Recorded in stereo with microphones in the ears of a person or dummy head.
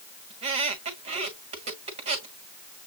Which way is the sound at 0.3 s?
40° right (ahead or behind).